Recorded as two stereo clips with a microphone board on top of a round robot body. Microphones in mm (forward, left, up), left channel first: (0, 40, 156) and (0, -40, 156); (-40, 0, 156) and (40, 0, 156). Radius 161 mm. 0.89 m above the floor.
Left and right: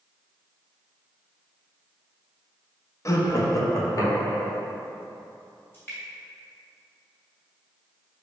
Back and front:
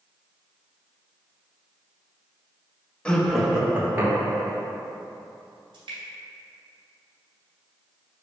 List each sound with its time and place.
3.0 s laughter: 110° left, 0.8 m; by 4.6 s 45° left, 1.1 m
5.7 s dripping: 25° left, 0.7 m